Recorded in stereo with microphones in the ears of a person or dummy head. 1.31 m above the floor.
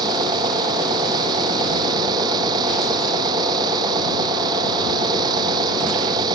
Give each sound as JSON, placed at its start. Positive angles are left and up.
{"t": 0.0, "sound": "an engine running", "side_deg": -25}